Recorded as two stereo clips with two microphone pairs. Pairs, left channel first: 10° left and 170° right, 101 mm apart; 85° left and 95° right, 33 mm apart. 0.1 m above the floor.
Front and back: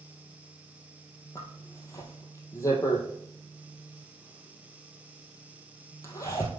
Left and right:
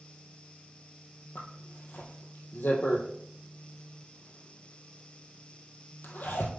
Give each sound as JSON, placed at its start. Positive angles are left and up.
{"t": 1.4, "sound": "a zipper", "azimuth_deg": 65, "distance_m": 2.0}